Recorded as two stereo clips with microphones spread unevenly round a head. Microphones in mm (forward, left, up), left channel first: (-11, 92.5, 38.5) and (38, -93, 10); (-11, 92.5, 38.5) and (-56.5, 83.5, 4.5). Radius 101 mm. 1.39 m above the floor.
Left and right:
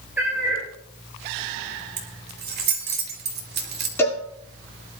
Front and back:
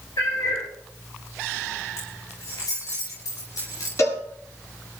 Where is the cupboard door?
I don't hear a cupboard door.